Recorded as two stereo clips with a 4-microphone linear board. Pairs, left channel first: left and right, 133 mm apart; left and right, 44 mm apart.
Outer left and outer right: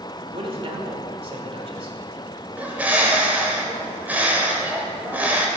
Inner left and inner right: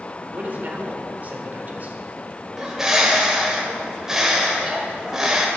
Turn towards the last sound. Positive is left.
turn(degrees=-10)  # may be behind; listen again after turning